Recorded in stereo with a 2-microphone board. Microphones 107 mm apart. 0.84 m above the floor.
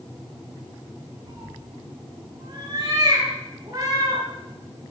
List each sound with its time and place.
1.3 s a cat meowing: 45° right (ahead or behind), 6 m; by 4.2 s 35° right (ahead or behind), 7.5 m